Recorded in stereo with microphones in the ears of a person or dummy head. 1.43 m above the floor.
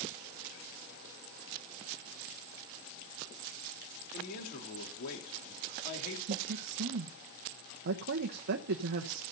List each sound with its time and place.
4.1 s a man speaking: 50° left (ahead or behind), 3.5 m
6.3 s a woman speaking: 65° right (ahead or behind), 1.0 m